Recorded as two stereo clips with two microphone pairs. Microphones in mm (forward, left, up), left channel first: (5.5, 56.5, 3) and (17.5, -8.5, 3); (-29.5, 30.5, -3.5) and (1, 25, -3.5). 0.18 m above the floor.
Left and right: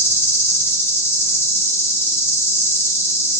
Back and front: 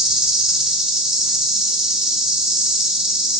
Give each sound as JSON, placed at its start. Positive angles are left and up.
{"t": 0.0, "sound": "an insect", "azimuth_deg": 65, "distance_m": 0.7}